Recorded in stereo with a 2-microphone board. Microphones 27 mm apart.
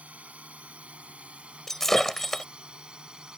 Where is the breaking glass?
15° left (ahead or behind).